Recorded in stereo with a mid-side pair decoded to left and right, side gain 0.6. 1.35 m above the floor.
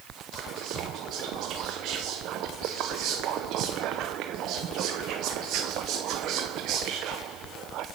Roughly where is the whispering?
Ahead right.